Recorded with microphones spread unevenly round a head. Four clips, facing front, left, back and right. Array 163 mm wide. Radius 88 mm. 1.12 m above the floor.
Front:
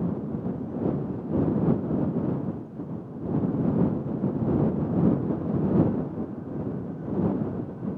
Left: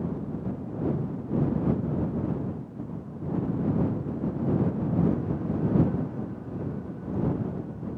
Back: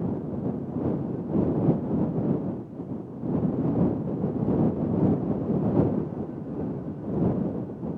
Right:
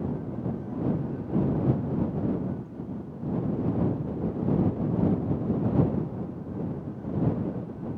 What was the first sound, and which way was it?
Only background noise.